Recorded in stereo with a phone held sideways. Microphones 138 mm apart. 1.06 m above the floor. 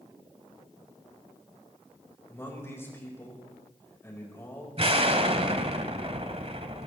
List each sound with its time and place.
2.3 s a man speaking: 20° left (ahead or behind), 4.5 m
4.8 s an explosion: 45° right (ahead or behind), 1.4 m